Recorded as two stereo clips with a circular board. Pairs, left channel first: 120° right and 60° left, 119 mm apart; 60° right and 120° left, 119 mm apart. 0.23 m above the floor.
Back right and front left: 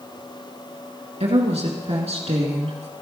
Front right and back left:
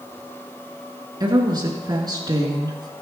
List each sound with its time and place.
1.2 s a woman speaking: 70° left, 3 m